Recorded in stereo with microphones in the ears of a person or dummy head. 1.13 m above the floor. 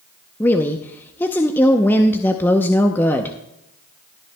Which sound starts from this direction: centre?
A woman speaking, at 0.4 s.